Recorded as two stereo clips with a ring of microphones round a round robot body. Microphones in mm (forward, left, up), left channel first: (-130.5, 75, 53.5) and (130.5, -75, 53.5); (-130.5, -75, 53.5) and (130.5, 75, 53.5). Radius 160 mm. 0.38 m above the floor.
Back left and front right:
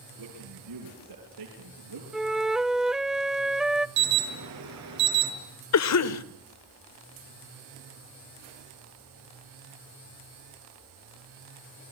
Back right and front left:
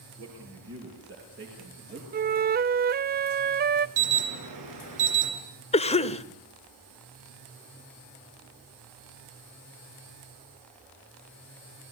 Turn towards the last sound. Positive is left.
turn(degrees=145)